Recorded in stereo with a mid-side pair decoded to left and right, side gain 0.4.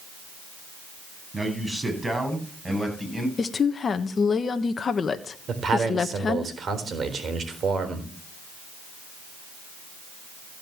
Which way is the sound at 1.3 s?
20° right.